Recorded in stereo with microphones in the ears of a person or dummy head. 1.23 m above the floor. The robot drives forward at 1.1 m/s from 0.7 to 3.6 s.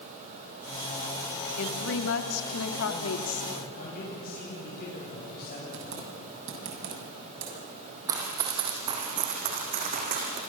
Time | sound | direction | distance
1.6 | a woman speaking | 65° left (ahead or behind) | 2.5 m
3.5 | a man speaking | 50° left (ahead or behind) | 9.5 m
5.7 | typing on a keyboard | 70° right (ahead or behind) | 7 m
8.1 | running footsteps | 15° right (ahead or behind) | 3 m